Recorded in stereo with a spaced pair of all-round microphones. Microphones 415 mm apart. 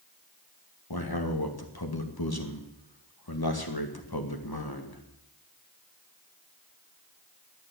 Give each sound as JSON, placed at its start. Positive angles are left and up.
{"t": 0.9, "sound": "a man speaking", "side_deg": 60, "distance_m": 2.0}